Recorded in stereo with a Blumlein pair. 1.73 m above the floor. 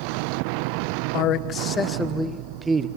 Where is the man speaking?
40° left, 1.3 m; by 2.9 s 20° right, 1.3 m.